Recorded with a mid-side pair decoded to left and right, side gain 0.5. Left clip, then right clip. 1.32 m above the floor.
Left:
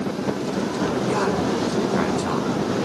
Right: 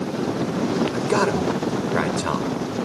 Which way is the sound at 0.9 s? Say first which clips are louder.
Right 1 dB; 40° right.